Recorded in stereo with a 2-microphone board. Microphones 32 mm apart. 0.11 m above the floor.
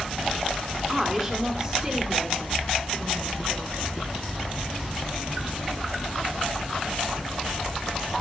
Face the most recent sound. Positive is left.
turn(degrees=-55)  # may be behind; listen again after turning